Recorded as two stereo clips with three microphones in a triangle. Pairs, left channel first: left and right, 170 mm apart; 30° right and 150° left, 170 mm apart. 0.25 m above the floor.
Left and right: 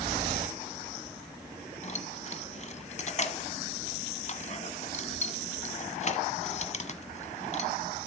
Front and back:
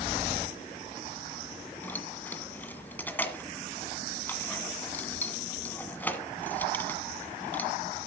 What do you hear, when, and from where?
1.8 s keys jangling: 50° left, 1.5 m